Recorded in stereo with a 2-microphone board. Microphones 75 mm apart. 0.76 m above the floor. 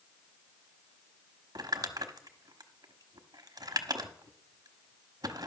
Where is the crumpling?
60° right (ahead or behind), 1.0 m.